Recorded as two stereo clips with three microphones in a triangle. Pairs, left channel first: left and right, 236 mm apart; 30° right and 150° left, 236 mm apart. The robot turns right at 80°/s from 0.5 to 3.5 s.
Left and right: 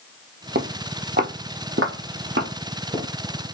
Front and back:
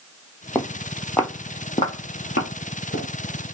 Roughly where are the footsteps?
Right.